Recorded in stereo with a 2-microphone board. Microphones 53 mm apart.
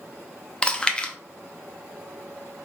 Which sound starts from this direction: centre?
Chewing, at 0.6 s.